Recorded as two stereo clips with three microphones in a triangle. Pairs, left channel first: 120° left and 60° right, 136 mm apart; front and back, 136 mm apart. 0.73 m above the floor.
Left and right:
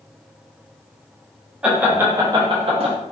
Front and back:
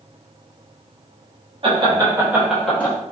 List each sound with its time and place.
1.6 s laughter: 140° right, 1.0 m; by 2.9 s 65° right, 0.8 m